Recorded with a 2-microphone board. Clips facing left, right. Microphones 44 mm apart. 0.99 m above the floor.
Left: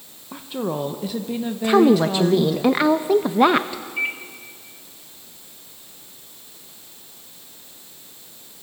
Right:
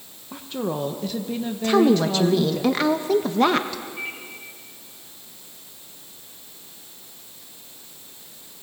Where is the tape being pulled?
I don't hear tape being pulled.